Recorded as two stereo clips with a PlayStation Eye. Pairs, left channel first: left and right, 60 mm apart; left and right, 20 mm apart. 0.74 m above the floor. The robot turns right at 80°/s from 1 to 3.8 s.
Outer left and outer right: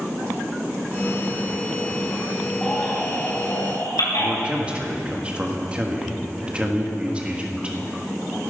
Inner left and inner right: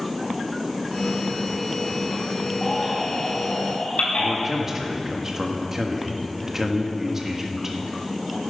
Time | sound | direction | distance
2.6 | a baby crying | 5° left (ahead or behind) | 4.5 m
4.2 | a man speaking | 20° right (ahead or behind) | 1.3 m